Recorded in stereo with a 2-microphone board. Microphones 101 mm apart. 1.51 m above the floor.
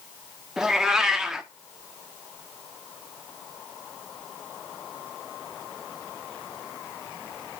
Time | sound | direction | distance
0.6 | a cat meowing | 5° right (ahead or behind) | 1.0 m